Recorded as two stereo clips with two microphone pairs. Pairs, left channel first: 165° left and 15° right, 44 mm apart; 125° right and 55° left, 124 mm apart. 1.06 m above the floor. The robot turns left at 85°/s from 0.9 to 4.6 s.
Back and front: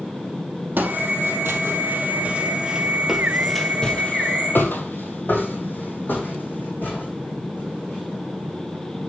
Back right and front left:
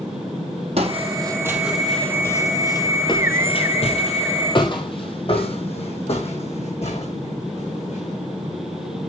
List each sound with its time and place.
0.8 s footsteps: 25° left, 2.5 m; by 8.1 s 150° right, 5 m